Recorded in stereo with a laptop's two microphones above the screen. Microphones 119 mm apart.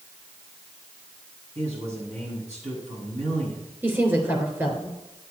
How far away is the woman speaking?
About 3 m.